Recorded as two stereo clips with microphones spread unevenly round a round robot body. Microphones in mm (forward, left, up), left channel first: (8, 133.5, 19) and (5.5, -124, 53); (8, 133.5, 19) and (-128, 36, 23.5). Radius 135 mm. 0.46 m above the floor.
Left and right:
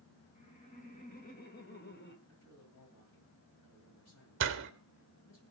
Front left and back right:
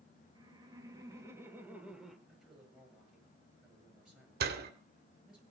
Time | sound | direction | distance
0.3 | laughter | 150° left | 4.5 m
2.3 | a man speaking | 130° left | 9.5 m
4.4 | a door slam | 130° right | 1.5 m